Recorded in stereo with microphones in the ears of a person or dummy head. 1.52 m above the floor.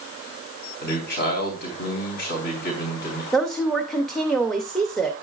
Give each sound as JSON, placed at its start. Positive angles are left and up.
{"t": 0.8, "sound": "a man speaking", "side_deg": 50, "distance_m": 4.0}
{"t": 3.3, "sound": "a woman speaking", "side_deg": 0, "distance_m": 0.8}